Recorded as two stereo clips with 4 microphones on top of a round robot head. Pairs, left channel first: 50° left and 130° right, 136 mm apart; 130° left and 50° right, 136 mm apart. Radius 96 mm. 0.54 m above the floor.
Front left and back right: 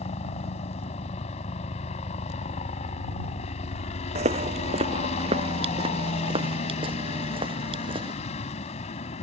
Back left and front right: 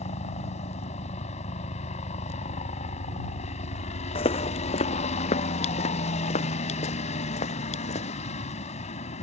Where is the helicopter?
95° left.